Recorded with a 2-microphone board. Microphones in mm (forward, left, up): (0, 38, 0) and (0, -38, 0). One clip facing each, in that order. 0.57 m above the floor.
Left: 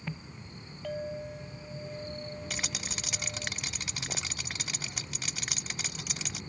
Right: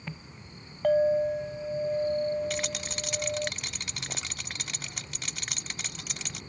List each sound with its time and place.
0.8 s a clink: 55° right (ahead or behind)
2.5 s a rattle: 5° left (ahead or behind)